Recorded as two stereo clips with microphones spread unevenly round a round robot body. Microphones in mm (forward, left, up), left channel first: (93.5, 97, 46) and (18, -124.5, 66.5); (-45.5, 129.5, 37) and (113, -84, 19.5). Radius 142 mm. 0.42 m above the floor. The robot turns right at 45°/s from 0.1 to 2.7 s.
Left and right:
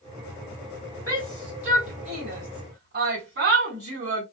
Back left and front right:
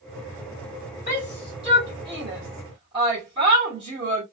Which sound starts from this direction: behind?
A shout, at 1.1 s.